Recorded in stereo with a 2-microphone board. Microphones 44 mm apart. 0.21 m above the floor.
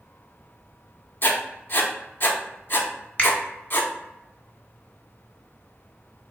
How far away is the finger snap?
About 1.2 m.